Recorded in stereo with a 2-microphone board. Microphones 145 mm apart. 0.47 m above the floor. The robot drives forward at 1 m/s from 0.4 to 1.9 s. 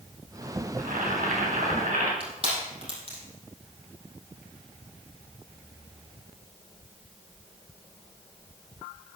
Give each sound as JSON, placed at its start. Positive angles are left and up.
{"t": 0.8, "sound": "boiling", "side_deg": -75, "distance_m": 3.5}
{"t": 2.2, "sound": "crushing", "side_deg": -40, "distance_m": 4.5}